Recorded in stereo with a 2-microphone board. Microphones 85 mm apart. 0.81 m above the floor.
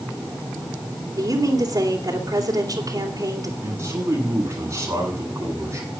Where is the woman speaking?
45° right (ahead or behind), 3 m.